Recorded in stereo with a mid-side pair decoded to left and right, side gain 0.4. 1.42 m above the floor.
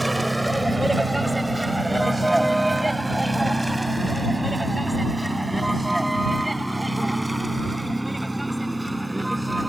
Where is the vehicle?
15° right; by 9.7 s 10° right.